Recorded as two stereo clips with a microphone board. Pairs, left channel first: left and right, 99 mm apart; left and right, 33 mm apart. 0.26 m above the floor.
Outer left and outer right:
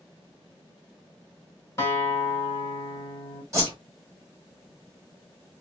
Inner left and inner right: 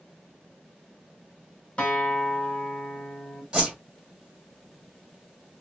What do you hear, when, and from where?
1.8 s a guitar: 30° left (ahead or behind), 1.7 m
3.5 s a whoosh: 30° right (ahead or behind), 1.9 m